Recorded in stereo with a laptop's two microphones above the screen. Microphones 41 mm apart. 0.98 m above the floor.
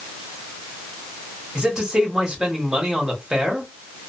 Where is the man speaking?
15° right (ahead or behind), 1.3 m.